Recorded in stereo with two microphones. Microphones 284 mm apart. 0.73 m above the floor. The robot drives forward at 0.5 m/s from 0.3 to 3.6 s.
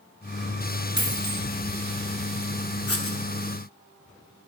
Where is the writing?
55° left (ahead or behind), 0.6 m; by 3.2 s 45° left (ahead or behind), 0.7 m.